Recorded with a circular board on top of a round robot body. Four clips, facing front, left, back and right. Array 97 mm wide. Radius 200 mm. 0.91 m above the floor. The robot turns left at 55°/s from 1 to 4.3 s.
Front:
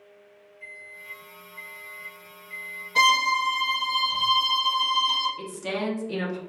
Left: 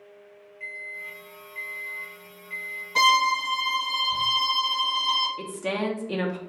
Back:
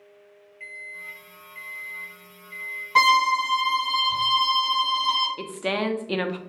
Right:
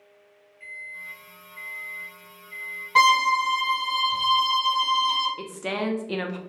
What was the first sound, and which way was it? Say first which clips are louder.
A microwave: left 2 dB, back 5 dB; 160° left.